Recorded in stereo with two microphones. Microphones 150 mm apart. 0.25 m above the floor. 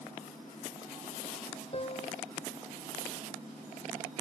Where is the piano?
45° left (ahead or behind).